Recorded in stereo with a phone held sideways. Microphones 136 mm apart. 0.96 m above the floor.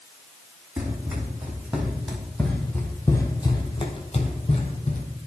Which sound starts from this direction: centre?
Running footsteps, at 0.8 s.